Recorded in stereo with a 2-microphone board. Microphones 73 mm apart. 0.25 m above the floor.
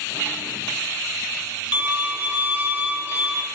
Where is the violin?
25° right (ahead or behind), 0.5 m.